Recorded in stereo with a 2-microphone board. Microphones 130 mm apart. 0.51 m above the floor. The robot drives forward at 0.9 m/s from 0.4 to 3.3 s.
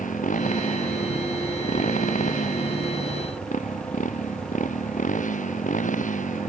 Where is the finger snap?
I don't hear a finger snap.